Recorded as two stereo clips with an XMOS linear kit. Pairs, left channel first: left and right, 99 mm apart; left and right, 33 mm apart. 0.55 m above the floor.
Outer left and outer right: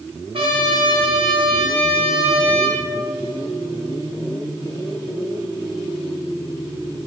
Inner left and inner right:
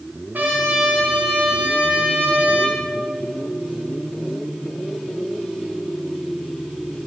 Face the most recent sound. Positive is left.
turn(degrees=-65)  # may be behind; listen again after turning